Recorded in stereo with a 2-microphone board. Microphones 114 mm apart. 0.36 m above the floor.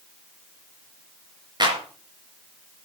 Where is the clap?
40° right (ahead or behind), 4 m.